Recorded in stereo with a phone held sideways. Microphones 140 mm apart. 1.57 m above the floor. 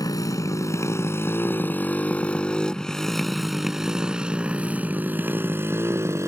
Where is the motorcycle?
25° left (ahead or behind); by 6.3 s 20° right (ahead or behind).